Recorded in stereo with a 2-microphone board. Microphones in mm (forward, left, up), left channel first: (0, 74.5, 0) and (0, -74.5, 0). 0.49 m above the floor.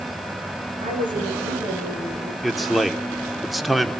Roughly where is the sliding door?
No sliding door in this recording.